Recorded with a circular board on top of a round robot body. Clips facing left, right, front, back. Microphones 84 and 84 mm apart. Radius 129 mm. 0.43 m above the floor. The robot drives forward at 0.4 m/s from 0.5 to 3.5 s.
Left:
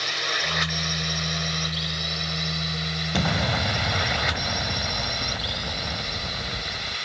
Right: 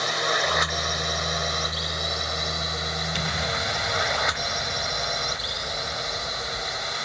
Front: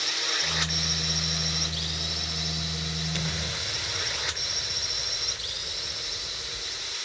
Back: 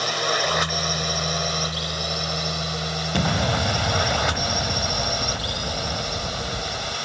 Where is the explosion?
140° left; by 7.0 s 145° left.